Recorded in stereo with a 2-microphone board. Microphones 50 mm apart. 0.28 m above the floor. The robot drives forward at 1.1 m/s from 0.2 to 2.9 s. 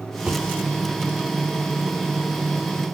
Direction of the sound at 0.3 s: 25° right (ahead or behind).